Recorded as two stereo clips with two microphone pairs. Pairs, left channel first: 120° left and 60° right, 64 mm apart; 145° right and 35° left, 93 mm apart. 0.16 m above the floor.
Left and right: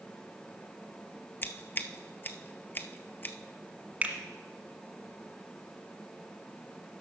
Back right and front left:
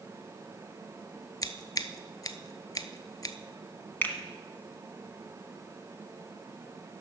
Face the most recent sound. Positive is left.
turn(degrees=-100)